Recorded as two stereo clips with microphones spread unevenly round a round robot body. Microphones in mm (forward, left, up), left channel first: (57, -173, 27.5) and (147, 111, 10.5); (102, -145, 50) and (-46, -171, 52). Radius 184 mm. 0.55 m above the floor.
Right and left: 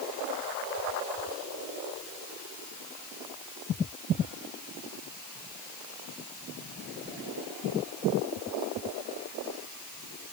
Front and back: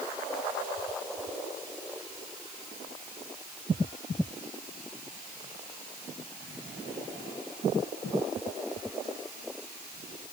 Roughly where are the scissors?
No scissors in this recording.